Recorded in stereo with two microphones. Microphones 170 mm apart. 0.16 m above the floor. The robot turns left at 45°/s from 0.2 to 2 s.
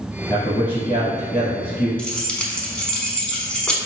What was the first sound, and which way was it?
A man speaking, 145° left.